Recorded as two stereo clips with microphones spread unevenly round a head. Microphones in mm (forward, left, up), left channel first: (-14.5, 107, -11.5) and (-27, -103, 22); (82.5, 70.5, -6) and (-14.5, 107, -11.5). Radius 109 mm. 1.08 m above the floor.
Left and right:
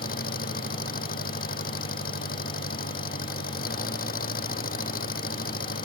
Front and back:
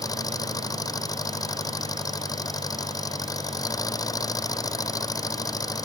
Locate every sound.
0.0 s an engine running: 35° left